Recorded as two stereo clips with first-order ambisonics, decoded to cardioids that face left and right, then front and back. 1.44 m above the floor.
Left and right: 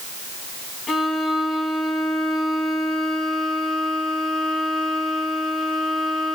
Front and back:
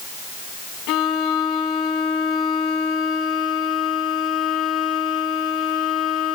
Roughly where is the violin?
Ahead.